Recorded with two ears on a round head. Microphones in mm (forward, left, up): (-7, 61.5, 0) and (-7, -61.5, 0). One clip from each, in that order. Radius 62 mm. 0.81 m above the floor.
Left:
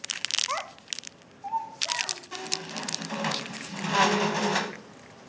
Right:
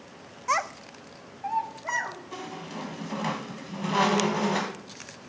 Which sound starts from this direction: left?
A squeak, at 2.3 s.